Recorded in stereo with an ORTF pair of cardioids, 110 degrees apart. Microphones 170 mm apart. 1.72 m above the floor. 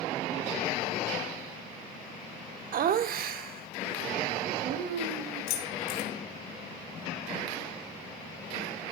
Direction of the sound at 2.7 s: 55° right.